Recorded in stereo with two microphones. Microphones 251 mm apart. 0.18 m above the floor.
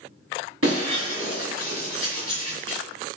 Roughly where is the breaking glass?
Right.